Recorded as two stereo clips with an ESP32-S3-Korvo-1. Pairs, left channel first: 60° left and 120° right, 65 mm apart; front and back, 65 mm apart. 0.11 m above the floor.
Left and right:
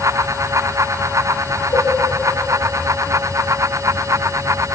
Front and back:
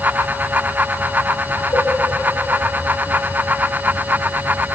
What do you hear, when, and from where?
1.7 s a cowbell: 30° left, 8 m